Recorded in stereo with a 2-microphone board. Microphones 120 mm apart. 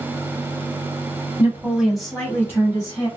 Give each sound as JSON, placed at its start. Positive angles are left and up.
{"t": 1.4, "sound": "a woman speaking", "side_deg": -20, "distance_m": 1.4}